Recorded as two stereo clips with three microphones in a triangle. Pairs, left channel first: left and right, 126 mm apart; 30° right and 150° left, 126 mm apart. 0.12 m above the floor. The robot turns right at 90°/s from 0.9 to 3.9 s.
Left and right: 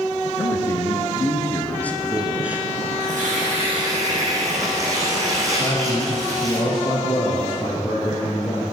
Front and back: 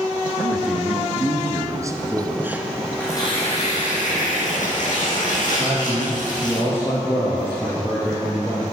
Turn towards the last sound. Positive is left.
turn(degrees=40)